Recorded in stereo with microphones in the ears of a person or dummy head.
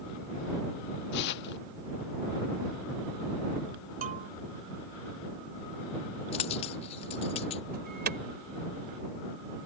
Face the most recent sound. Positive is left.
turn(degrees=-45)  # may be behind; listen again after turning